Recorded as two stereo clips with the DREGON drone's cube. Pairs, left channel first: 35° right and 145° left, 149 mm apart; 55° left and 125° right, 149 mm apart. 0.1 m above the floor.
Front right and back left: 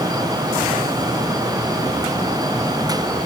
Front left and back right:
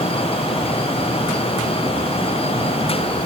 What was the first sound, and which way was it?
Only background noise.